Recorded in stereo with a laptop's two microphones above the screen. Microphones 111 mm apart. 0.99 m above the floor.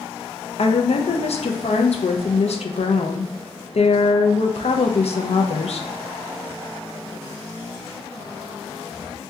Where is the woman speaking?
65° left (ahead or behind), 0.5 m.